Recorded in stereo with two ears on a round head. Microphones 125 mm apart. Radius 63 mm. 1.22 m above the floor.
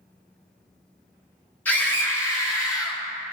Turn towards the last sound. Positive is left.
turn(degrees=30)  # may be behind; listen again after turning